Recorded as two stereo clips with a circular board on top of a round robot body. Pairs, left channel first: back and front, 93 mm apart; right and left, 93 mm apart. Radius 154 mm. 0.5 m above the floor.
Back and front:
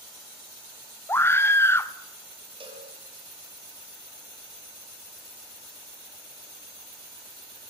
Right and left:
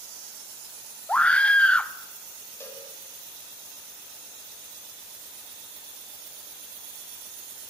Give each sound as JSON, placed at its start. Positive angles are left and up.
{"t": 1.1, "sound": "a scream", "azimuth_deg": -155, "distance_m": 1.1}
{"t": 2.6, "sound": "a cowbell", "azimuth_deg": -25, "distance_m": 6.0}